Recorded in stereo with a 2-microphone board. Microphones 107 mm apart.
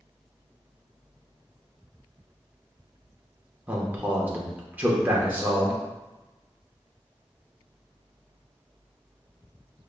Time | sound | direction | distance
3.7 | a man speaking | 15° right (ahead or behind) | 0.7 m